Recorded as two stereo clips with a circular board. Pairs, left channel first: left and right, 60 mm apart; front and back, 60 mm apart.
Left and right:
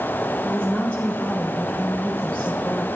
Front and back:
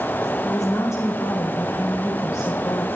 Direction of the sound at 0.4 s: 20° left.